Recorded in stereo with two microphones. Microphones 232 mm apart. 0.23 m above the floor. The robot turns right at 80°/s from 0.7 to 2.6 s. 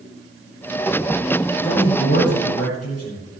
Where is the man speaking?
25° left, 9 m; by 3.2 s 100° left, 9 m.